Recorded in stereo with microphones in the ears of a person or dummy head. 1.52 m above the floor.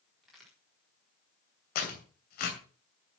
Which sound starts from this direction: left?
Tearing paper, at 1.8 s.